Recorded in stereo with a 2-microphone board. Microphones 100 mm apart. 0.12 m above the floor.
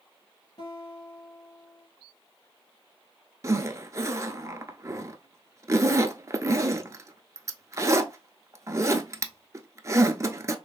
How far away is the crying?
I don't hear crying.